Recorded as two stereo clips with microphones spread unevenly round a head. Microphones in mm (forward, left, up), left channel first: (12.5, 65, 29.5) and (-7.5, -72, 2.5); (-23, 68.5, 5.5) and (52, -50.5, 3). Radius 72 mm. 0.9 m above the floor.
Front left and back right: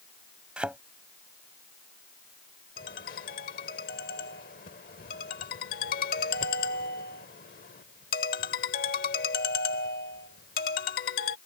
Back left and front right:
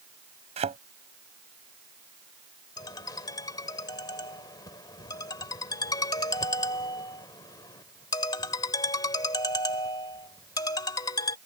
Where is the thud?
10° right.